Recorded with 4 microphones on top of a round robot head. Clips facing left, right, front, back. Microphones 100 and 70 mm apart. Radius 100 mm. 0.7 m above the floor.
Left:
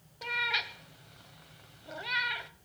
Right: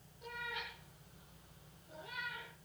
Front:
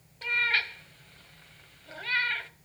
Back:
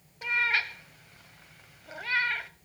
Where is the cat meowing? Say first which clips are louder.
Left 10 dB, back 1 dB; 100° left, 1.5 m.